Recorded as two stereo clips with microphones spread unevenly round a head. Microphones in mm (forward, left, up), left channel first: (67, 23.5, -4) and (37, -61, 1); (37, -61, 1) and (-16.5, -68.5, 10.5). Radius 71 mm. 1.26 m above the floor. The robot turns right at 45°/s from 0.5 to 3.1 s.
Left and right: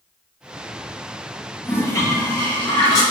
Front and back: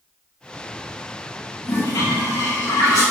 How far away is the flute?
No flute in this recording.